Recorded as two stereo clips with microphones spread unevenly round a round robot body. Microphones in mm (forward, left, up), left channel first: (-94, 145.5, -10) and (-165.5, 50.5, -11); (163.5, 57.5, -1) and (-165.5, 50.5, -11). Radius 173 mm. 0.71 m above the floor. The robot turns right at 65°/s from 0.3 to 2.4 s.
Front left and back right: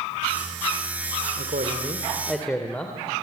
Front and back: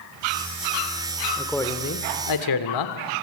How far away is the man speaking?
About 2 m.